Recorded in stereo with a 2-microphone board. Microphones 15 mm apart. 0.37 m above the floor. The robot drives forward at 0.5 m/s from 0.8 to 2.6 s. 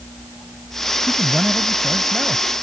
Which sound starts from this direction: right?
A man speaking, at 1.1 s.